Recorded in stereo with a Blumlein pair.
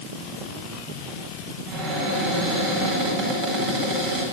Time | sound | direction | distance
1.7 | a cupboard door | 40° right | 8.5 m